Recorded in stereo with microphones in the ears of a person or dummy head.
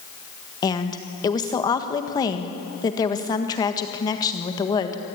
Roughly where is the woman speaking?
Centre.